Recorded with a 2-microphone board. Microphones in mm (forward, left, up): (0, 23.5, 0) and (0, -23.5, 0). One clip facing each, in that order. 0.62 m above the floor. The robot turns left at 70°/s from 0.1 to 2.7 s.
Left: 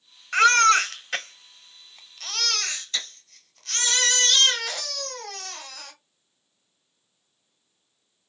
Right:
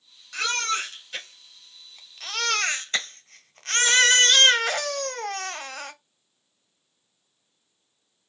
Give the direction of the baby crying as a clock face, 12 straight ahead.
8 o'clock.